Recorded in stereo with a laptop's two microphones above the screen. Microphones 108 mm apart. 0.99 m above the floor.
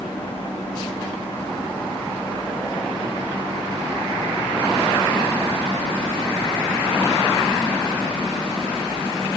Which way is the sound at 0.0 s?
75° left (ahead or behind).